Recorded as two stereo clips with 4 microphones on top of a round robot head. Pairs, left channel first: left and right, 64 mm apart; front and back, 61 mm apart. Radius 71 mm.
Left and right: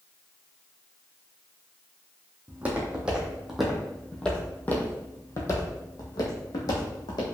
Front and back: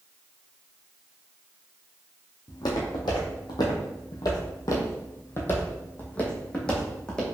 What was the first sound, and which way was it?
Footsteps, 25° right.